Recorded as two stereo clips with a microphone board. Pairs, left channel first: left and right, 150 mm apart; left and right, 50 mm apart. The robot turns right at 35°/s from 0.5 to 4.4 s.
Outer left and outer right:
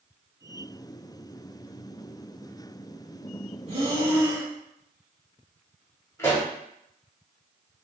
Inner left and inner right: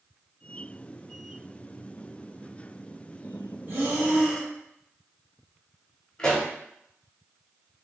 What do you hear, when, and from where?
3.7 s breathing: 45° right (ahead or behind), 1.1 m; by 4.5 s 25° right (ahead or behind), 1.1 m
6.2 s a pop: 15° left (ahead or behind), 1.2 m